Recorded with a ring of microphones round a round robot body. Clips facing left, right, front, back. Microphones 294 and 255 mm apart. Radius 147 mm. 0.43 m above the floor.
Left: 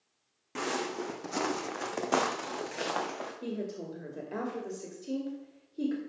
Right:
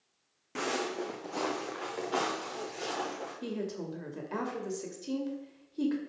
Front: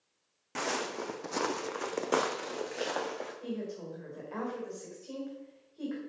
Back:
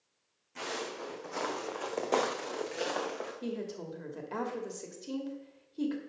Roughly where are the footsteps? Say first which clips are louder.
Even, front 3 dB; ahead.